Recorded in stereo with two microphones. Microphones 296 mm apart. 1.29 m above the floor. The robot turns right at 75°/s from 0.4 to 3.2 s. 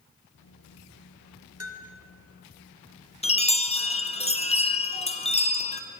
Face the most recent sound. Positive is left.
turn(degrees=20)  # may be behind; listen again after turning